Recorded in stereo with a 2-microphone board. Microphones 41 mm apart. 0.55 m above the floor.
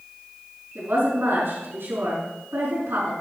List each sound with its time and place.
0.8 s a woman speaking: 75° right (ahead or behind), 5 m